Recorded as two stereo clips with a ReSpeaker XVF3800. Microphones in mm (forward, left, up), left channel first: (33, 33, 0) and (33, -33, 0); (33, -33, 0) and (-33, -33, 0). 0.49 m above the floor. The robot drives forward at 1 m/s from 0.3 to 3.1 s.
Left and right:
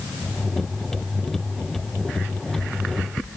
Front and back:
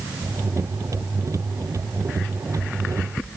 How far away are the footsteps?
No footsteps in this recording.